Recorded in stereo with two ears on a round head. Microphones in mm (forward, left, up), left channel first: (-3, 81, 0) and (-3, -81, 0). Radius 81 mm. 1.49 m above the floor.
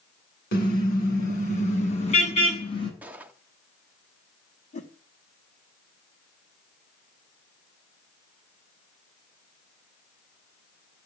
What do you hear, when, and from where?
0.5 s a car horn: 50° left (ahead or behind), 8.5 m; by 2.9 s 30° left (ahead or behind), 7 m
3.0 s a gunshot: 10° right (ahead or behind), 1.2 m
4.7 s a whoosh: 40° left (ahead or behind), 3.5 m